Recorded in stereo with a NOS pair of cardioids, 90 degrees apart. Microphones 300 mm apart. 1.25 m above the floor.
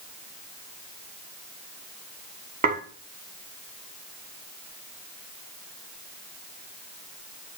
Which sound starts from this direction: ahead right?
Dishes clattering, at 2.6 s.